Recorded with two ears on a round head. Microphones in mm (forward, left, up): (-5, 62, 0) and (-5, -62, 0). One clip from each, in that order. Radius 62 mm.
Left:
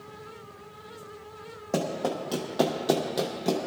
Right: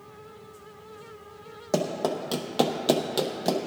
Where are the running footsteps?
30° right (ahead or behind), 2 m.